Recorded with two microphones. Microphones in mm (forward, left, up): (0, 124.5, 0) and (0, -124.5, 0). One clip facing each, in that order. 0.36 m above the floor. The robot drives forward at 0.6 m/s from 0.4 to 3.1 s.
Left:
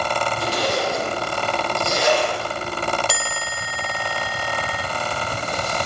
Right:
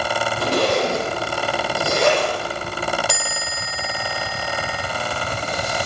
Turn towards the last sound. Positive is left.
turn(degrees=5)  # may be behind; listen again after turning